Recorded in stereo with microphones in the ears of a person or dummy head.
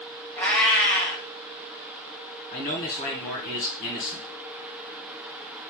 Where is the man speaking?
40° left (ahead or behind), 1.2 m.